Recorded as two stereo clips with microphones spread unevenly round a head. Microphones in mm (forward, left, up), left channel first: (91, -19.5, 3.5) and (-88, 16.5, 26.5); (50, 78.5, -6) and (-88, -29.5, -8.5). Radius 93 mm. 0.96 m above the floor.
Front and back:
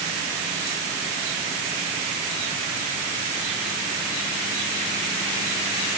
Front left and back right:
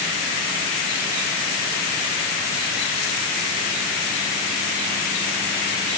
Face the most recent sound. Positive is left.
No sound to turn to.